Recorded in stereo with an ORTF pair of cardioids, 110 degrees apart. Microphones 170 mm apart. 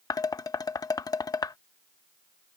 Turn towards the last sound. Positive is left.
turn(degrees=20)